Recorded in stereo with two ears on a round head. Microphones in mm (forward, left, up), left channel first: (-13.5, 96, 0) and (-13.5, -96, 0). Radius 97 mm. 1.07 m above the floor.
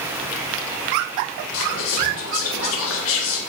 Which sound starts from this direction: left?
Whispering, at 1.5 s.